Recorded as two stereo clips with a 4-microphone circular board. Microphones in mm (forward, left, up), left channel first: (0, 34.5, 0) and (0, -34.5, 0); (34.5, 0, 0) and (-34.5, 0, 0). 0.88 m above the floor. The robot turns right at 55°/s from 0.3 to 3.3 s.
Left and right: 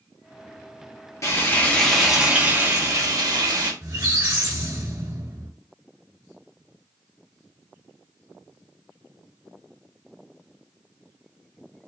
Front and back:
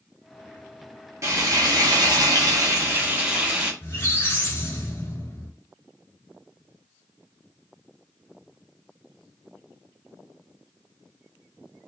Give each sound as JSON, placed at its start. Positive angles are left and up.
{"t": 1.2, "sound": "frying", "azimuth_deg": 135, "distance_m": 1.4}
{"t": 3.8, "sound": "a squeak", "azimuth_deg": -55, "distance_m": 2.0}